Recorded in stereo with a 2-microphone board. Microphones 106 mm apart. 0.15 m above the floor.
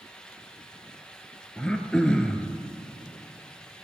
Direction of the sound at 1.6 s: 10° left (ahead or behind).